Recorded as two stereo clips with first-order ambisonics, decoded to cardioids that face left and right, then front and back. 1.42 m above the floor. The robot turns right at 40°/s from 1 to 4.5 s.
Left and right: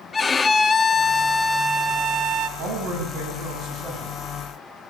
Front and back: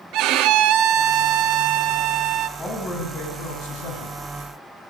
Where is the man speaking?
75° right, 10 m; by 4.2 s 15° right, 10 m.